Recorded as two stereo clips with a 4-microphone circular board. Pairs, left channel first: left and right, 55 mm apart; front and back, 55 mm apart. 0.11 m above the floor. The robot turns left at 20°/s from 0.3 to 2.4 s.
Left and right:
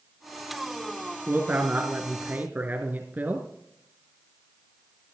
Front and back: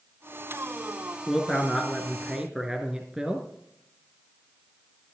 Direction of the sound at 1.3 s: 90° right.